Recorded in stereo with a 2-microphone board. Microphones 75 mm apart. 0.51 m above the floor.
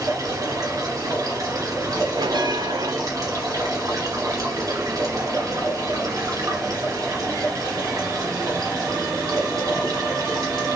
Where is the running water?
50° right (ahead or behind), 2 m.